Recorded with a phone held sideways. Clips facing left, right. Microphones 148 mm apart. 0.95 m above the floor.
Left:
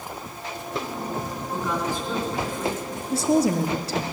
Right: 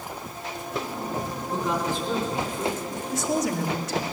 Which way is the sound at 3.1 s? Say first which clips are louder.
Left 6 dB; 35° left (ahead or behind).